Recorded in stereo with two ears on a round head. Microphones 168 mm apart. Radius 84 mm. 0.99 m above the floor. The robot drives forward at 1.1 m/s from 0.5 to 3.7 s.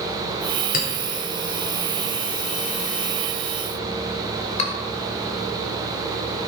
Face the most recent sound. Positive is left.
turn(degrees=40)  # may be behind; listen again after turning